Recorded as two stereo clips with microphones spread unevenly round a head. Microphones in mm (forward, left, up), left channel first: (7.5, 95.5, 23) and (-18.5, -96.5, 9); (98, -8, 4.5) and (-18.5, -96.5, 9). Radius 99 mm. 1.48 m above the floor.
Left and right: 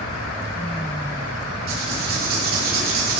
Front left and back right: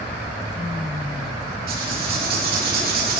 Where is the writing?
135° right, 2.5 m.